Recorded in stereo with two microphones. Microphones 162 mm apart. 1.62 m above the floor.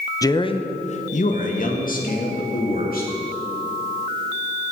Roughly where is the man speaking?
Centre.